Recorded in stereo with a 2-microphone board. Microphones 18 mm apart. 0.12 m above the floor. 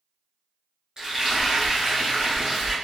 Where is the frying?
35° right (ahead or behind), 1.5 m.